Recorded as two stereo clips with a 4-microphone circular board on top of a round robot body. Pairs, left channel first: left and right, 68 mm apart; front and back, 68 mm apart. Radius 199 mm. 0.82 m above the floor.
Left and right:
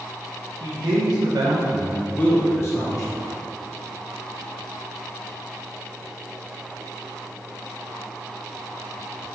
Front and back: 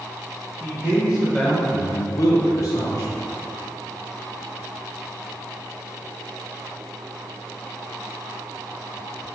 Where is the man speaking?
105° right, 1.4 m; by 3.3 s 50° left, 1.6 m.